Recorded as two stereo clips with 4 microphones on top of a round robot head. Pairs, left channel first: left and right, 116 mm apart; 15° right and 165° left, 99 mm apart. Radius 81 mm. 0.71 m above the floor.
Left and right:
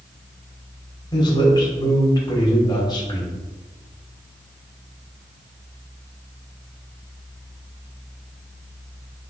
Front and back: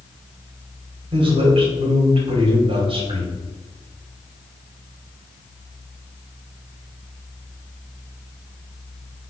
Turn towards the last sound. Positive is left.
turn(degrees=140)